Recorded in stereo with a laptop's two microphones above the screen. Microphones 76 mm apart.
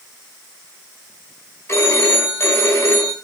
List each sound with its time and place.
1.7 s a phone ringing: 35° left (ahead or behind), 4.5 m